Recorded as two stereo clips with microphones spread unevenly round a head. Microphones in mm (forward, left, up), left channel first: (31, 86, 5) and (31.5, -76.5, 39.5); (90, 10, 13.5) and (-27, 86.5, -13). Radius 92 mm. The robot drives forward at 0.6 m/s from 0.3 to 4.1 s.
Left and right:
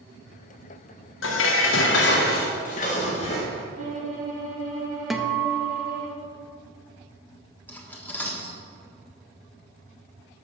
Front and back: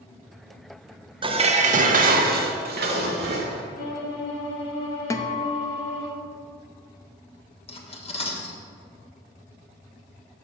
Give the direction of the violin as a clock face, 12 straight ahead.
2 o'clock.